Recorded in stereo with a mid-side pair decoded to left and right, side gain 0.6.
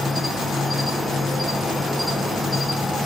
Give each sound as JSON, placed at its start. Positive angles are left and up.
{"t": 0.0, "sound": "an insect", "azimuth_deg": 5, "distance_m": 0.8}